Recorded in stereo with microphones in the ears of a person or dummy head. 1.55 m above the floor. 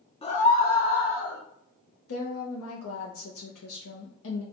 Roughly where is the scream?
Left.